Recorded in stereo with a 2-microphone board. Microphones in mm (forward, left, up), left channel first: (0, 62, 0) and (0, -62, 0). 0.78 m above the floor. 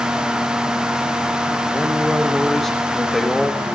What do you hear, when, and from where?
1.7 s a man speaking: centre (ahead or behind), 1.2 m